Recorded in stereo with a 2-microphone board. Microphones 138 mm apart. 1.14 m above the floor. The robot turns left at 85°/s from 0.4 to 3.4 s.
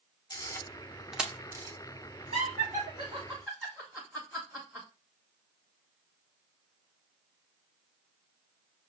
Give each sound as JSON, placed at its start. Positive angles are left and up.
{"t": 0.3, "sound": "a camera shutter", "side_deg": 25, "distance_m": 0.7}
{"t": 2.3, "sound": "laughter", "side_deg": -70, "distance_m": 1.2}